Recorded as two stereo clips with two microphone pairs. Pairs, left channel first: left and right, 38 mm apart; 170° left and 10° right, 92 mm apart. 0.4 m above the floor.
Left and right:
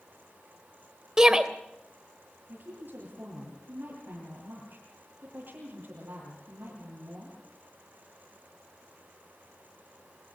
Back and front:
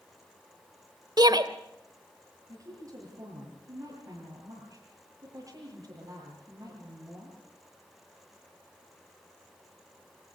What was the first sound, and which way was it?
A shout, 20° right.